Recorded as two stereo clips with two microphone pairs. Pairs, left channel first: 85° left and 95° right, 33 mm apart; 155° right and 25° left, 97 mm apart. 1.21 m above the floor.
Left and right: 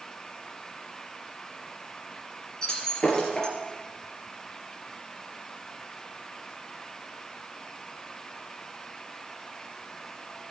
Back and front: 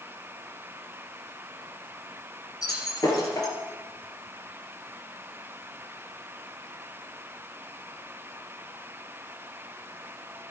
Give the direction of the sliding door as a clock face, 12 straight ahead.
I don't hear a sliding door.